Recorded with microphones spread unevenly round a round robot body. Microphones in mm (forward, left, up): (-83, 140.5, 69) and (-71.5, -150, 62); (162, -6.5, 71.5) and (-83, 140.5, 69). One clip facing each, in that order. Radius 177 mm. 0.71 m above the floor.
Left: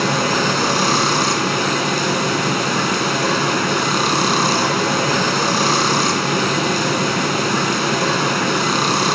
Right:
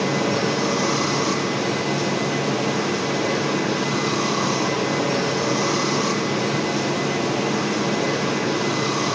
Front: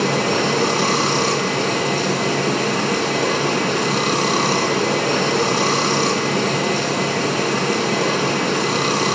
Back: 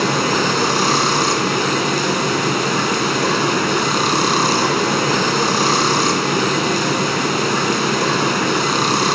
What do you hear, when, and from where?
0.0 s running water: 85° left, 1.6 m